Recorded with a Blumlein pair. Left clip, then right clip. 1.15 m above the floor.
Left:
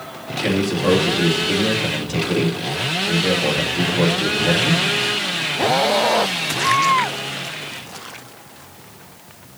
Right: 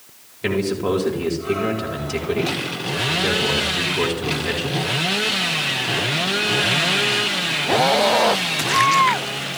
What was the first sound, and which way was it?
A man speaking, straight ahead.